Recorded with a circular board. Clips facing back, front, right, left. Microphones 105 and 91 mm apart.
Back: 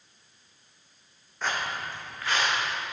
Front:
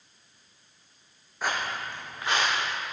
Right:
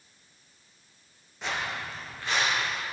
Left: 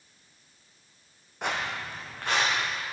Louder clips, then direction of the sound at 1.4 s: Front 1 dB, left 1 dB; 80° left.